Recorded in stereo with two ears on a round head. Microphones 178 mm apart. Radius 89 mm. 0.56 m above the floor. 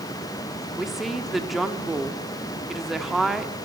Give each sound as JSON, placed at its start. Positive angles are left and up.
{"t": 0.8, "sound": "a woman speaking", "side_deg": 0, "distance_m": 1.2}